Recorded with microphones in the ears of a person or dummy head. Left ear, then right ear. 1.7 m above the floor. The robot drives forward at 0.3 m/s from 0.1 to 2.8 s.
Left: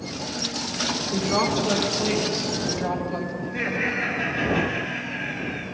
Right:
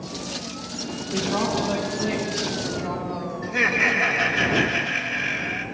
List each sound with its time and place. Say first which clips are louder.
1.1 s a woman speaking: right 1 dB; 85° left, 4.5 m
3.4 s laughter: right 8 dB; 60° right (ahead or behind), 1.5 m